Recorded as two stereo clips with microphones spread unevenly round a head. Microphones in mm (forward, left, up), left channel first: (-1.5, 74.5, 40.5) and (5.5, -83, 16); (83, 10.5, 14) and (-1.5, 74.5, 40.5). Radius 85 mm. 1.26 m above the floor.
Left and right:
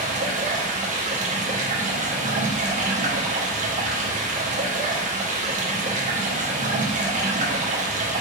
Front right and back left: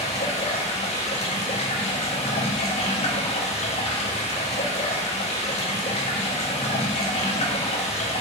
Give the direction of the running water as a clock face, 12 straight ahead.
2 o'clock.